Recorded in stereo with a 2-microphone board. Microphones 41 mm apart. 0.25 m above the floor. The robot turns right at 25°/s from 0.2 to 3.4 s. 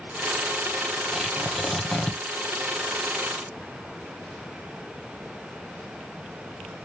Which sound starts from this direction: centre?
Tearing paper, at 1.1 s.